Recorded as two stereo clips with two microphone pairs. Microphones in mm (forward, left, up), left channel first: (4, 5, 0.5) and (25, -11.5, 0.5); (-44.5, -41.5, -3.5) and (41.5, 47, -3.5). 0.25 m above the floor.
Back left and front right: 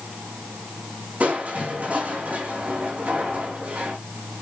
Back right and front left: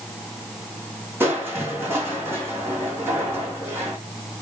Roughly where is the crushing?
Ahead right.